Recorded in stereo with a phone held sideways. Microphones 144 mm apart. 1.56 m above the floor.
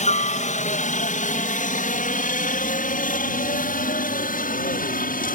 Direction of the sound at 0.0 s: 55° left (ahead or behind).